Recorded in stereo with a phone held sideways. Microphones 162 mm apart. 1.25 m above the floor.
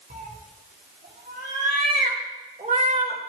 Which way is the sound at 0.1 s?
70° right (ahead or behind).